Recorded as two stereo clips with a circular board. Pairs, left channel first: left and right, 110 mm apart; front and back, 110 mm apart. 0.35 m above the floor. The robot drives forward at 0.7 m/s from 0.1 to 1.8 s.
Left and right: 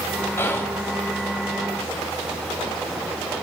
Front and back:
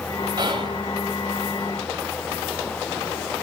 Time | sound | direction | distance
0.4 | whispering | 150° left | 1.4 m